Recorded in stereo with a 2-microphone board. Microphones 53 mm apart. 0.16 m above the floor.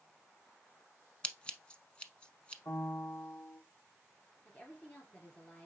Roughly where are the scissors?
Left.